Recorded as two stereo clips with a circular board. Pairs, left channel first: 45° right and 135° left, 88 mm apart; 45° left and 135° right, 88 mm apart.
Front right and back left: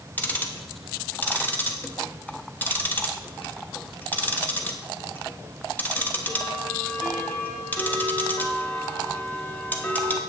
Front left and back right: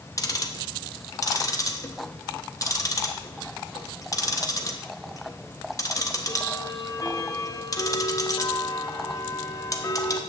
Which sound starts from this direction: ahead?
Ticking, at 0.2 s.